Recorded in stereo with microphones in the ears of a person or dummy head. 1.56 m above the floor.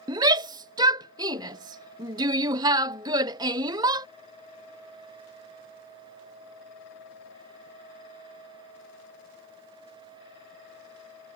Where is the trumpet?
I don't hear a trumpet.